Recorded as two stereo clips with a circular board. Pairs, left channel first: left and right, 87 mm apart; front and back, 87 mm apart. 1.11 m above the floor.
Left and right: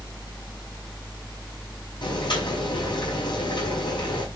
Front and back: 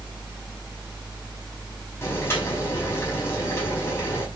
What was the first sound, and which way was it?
Boiling, 60° left.